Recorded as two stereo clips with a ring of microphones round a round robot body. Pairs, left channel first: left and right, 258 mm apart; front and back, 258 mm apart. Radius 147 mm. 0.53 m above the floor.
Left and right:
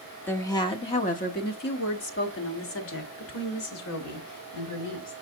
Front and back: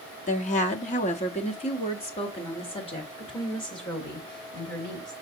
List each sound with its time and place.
0.3 s a woman speaking: 15° left, 0.9 m; by 5.1 s 75° left, 3 m